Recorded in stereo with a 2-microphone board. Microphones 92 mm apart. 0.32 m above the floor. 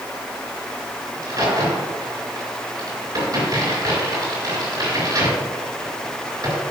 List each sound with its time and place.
1.1 s a crack: 40° right (ahead or behind), 4 m